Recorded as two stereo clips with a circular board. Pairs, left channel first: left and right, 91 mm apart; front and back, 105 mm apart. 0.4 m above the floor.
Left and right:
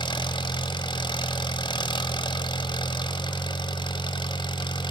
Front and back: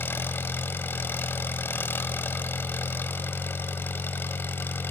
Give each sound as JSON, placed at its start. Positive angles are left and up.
{"t": 0.0, "sound": "an engine running", "azimuth_deg": 65, "distance_m": 1.2}